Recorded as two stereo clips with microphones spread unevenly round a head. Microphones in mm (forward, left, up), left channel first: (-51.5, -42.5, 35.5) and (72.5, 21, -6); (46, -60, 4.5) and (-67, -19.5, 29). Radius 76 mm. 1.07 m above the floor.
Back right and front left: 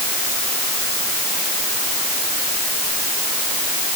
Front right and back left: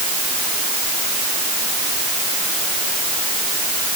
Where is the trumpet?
I don't hear a trumpet.